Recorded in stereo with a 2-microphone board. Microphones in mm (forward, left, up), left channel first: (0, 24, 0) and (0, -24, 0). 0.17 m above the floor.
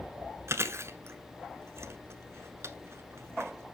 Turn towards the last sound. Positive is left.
turn(degrees=-60)  # may be behind; listen again after turning